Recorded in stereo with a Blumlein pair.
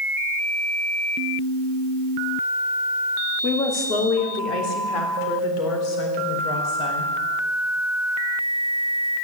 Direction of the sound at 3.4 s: 30° left.